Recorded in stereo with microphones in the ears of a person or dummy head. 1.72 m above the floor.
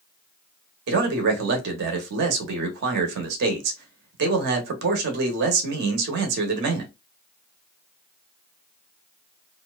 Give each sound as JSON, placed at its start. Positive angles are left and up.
{"t": 0.9, "sound": "a man speaking", "side_deg": -65, "distance_m": 0.9}